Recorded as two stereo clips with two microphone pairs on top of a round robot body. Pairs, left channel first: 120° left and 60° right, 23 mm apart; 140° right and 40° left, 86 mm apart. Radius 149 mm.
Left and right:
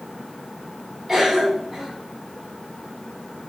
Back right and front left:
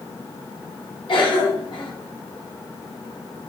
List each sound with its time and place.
1.1 s a cough: 145° right, 3.5 m